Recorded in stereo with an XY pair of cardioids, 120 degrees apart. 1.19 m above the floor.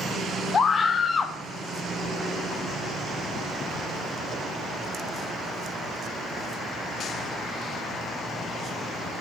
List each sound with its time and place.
0.5 s a scream: 35° left, 0.8 m